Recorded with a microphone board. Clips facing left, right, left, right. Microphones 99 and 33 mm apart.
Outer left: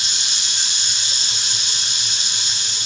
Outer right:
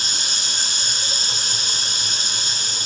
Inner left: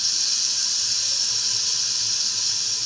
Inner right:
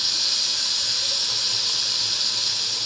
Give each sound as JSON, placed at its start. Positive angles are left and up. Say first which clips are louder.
{"t": 0.0, "sound": "running water", "louder": "outer right 2 dB, inner right 3 dB", "side_deg": -40, "distance_m": 0.8}